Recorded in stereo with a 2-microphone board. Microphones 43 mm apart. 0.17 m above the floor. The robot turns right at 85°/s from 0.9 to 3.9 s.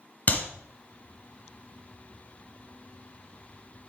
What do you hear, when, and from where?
0.3 s a clap: 35° left (ahead or behind), 1.8 m